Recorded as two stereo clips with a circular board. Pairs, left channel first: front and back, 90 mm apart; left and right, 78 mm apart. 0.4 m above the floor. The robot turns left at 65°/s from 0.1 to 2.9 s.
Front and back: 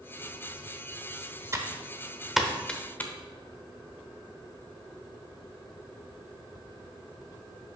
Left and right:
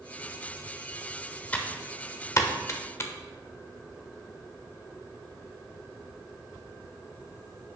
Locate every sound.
1.5 s typing on a keyboard: 150° left, 0.8 m; by 3.1 s 60° left, 0.8 m